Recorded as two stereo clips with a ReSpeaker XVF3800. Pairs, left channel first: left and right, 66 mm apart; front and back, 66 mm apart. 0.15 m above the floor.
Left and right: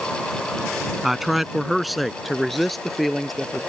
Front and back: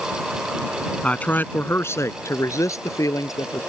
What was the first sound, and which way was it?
A man speaking, 10° right.